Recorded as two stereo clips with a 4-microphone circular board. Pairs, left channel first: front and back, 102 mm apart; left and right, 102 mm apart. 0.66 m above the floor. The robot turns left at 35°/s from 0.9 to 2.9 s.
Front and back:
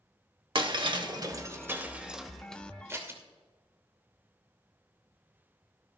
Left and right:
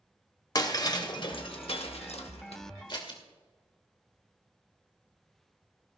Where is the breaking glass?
140° left, 1.1 m; by 2.6 s 80° left, 1.1 m.